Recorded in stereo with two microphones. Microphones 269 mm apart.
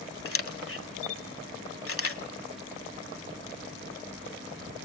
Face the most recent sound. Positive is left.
turn(degrees=55)  # may be behind; listen again after turning